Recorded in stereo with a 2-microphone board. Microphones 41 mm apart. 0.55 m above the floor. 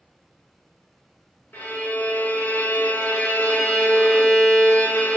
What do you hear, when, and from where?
1.5 s a violin: 50° left (ahead or behind), 0.7 m